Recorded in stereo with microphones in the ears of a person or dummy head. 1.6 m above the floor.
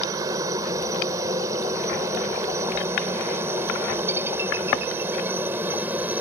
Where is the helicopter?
20° right (ahead or behind); by 6.2 s 10° right (ahead or behind).